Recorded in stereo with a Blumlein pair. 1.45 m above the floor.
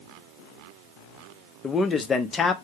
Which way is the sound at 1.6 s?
15° left.